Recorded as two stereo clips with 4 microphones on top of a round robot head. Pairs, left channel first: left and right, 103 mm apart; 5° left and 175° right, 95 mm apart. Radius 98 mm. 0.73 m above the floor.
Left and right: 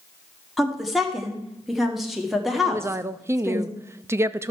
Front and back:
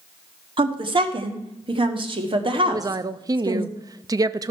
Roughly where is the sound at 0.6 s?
Behind.